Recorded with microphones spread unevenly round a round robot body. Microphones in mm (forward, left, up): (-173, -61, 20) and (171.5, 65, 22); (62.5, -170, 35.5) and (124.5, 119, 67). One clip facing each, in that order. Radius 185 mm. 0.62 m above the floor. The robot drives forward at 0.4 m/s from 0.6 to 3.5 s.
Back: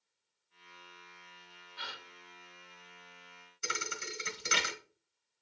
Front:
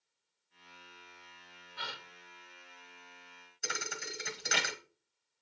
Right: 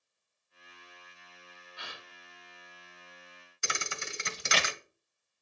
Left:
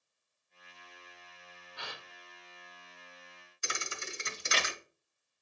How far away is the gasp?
About 3 m.